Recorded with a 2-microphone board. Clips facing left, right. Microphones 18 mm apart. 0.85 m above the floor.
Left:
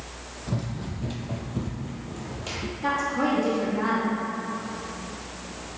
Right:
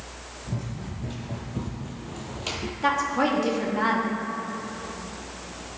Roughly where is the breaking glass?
I don't hear breaking glass.